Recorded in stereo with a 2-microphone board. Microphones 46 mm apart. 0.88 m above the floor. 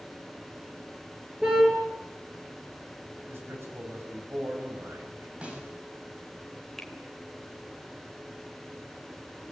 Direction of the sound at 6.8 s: 5° left (ahead or behind).